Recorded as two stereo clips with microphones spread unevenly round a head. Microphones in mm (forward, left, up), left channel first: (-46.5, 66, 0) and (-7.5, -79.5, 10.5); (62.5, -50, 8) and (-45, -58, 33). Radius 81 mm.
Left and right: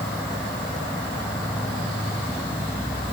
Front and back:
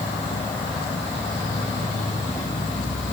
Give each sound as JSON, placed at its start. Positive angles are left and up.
{"t": 0.0, "sound": "an insect", "azimuth_deg": 25, "distance_m": 2.5}